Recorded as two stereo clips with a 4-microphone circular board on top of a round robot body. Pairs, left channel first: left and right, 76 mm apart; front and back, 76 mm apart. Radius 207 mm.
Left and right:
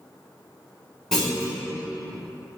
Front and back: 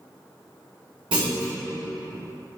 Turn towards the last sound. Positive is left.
turn(degrees=175)